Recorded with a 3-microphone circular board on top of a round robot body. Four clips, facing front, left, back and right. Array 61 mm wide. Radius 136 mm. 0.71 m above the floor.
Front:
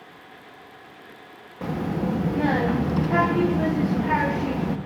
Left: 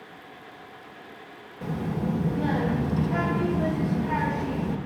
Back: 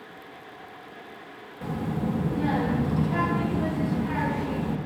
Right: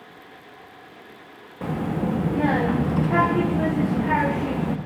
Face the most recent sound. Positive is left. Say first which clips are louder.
# right 4 dB, front 3 dB
turn(degrees=-55)